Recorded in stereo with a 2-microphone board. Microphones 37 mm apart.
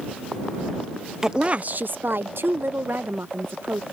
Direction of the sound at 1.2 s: 15° right (ahead or behind).